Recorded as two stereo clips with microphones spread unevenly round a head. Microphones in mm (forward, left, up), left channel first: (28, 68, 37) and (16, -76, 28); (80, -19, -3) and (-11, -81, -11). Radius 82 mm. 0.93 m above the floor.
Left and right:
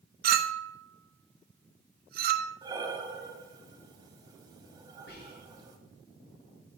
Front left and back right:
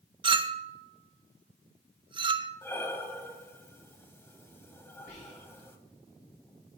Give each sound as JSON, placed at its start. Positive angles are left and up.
{"t": 0.2, "sound": "a clink", "azimuth_deg": -105, "distance_m": 0.7}
{"t": 2.6, "sound": "breathing", "azimuth_deg": -30, "distance_m": 1.4}
{"t": 5.1, "sound": "whispering", "azimuth_deg": 85, "distance_m": 3.0}